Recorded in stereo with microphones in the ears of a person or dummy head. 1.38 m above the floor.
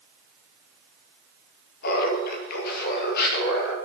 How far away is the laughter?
About 2 m.